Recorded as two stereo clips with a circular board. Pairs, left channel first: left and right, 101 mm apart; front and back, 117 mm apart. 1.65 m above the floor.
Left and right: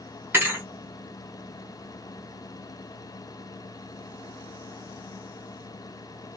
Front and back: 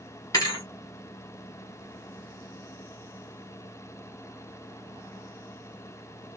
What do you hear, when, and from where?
0.3 s a thud: 35° right, 1.6 m